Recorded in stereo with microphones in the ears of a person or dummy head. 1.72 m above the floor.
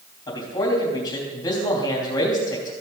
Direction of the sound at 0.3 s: 25° left (ahead or behind).